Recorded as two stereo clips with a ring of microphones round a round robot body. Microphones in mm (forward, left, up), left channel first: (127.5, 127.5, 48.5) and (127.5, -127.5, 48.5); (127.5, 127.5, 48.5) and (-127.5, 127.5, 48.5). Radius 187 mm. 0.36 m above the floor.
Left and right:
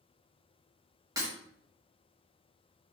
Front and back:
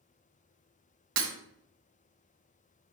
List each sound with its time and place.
1.2 s breaking glass: 170° right, 1.3 m